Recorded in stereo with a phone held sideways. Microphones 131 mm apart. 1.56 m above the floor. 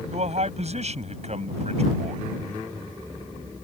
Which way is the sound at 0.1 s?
55° right (ahead or behind).